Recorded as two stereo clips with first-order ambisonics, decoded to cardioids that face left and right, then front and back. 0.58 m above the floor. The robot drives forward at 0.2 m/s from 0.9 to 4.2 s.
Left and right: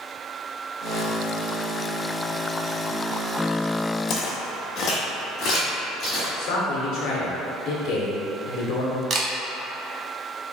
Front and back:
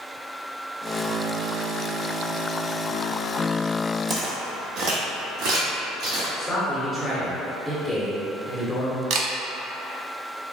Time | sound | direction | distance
4.1 | footsteps | 115° left | 0.8 m
6.4 | a man speaking | 85° left | 1.5 m
9.1 | a camera shutter | 150° right | 0.5 m